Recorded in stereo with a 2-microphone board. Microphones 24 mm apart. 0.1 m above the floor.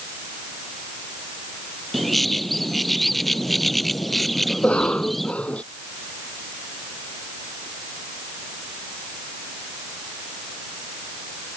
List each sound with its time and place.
1.9 s a bird: 10° left (ahead or behind)
4.5 s a cough: 65° left (ahead or behind)